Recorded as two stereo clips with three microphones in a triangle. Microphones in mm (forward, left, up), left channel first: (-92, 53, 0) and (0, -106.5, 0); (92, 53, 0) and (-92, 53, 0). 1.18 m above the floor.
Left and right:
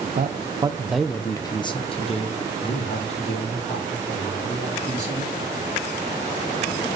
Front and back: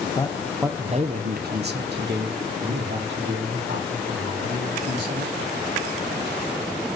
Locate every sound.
0.1 s a man speaking: 55° right, 0.6 m; by 5.4 s 170° left, 3.5 m